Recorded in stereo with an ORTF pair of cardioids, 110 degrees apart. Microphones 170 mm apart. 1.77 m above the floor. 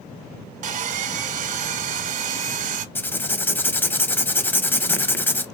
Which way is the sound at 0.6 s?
50° right.